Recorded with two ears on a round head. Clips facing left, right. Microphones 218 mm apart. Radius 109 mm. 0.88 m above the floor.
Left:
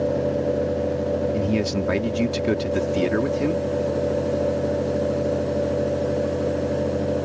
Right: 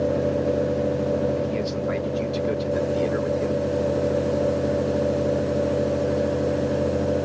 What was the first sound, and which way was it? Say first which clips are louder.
A man speaking: left 3 dB; 70° left (ahead or behind).